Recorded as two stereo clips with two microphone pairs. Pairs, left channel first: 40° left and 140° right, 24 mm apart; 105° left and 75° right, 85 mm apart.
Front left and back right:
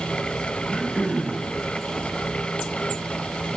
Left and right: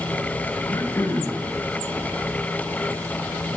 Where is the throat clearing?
165° left, 3.5 m.